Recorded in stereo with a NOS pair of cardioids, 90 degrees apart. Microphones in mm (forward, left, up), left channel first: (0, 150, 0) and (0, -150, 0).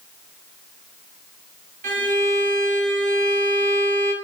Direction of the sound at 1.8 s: 25° right.